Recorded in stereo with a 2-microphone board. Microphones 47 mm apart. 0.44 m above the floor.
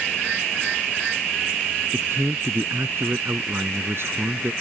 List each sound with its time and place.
1.9 s a man speaking: 60° right (ahead or behind)